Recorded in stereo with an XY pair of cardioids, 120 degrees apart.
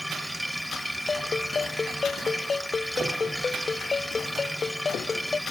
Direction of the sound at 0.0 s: 5° right.